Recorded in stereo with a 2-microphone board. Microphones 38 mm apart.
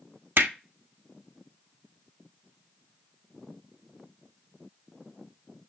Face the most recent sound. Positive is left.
turn(degrees=-65)  # may be behind; listen again after turning